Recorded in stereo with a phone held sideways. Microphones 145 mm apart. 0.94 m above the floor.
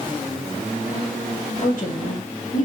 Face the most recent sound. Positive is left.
turn(degrees=65)  # may be behind; listen again after turning